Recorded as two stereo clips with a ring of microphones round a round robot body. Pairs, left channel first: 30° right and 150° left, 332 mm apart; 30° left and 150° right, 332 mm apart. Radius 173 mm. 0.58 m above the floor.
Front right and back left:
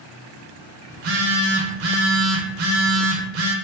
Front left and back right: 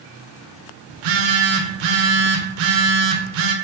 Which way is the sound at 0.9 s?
160° right.